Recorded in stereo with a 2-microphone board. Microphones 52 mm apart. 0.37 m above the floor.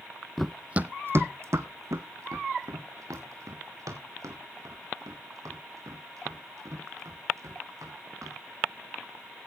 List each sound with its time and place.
0.4 s running footsteps: 5° left (ahead or behind), 0.6 m; by 8.3 s 85° right, 7.5 m